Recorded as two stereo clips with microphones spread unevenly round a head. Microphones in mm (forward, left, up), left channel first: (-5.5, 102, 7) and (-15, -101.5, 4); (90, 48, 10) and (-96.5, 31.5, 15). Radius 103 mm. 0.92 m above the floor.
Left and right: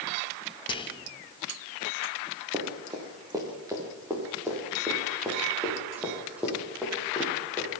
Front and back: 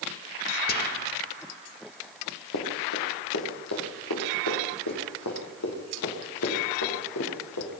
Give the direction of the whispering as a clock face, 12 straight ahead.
11 o'clock.